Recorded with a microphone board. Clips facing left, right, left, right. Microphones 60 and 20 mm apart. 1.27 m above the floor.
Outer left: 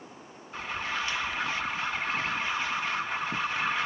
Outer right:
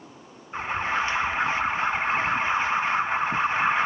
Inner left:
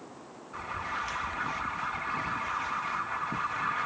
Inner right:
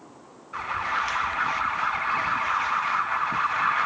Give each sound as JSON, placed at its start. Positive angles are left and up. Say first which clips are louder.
{"t": 0.5, "sound": "an alarm", "louder": "outer right 7 dB, inner right 8 dB", "side_deg": -30}